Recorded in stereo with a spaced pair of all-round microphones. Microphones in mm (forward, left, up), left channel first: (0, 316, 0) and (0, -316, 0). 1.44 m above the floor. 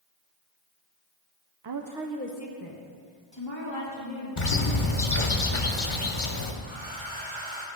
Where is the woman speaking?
50° right (ahead or behind), 0.5 m; by 4.3 s 45° left (ahead or behind), 3 m.